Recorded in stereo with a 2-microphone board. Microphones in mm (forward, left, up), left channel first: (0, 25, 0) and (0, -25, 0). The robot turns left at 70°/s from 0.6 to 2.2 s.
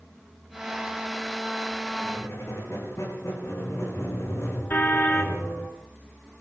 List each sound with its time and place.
2.0 s a squeak: 50° left (ahead or behind), 9.5 m; by 5.7 s 65° left (ahead or behind), 9.5 m
4.7 s a car horn: 35° left (ahead or behind), 2.5 m